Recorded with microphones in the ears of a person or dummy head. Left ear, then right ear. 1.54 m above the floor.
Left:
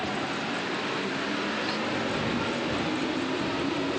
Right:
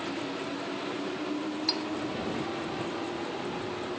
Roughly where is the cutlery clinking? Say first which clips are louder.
Even; right.